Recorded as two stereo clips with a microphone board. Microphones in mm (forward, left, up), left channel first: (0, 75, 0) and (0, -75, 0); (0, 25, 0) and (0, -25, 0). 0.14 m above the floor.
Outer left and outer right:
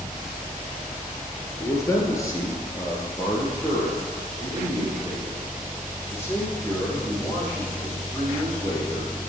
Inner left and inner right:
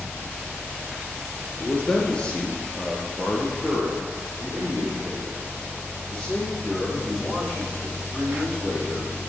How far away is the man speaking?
About 1.8 m.